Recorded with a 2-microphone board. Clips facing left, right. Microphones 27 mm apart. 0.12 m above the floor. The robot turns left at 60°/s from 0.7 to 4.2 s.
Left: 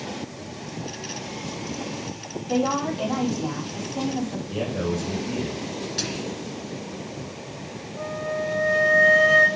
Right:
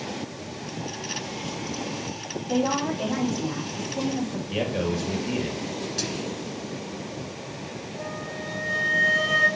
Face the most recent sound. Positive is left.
turn(degrees=40)  # may be behind; listen again after turning